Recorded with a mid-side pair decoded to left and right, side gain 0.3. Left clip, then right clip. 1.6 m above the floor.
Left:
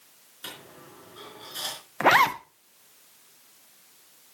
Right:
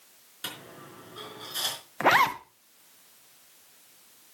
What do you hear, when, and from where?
0.4 s a dropped coin: 50° right, 4.5 m
2.0 s a zipper: 20° left, 1.0 m